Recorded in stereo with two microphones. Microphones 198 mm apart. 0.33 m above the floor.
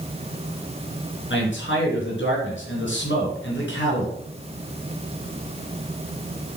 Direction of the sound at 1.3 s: 75° left (ahead or behind).